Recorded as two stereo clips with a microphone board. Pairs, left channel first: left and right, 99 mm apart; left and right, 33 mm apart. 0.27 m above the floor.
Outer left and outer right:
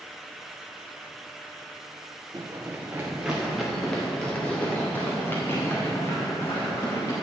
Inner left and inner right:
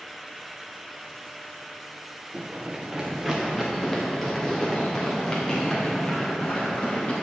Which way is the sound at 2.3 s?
35° right (ahead or behind).